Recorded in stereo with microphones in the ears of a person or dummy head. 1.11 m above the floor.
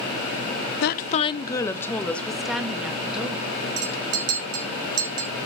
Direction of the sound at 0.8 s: 50° left (ahead or behind).